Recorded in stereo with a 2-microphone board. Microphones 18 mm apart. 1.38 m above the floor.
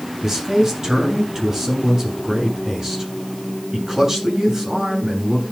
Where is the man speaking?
35° right (ahead or behind), 8.5 m.